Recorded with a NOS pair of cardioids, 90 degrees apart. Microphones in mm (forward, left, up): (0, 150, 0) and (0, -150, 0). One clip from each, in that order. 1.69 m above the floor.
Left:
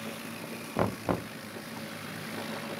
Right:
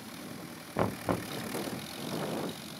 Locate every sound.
0.8 s knocking: 10° left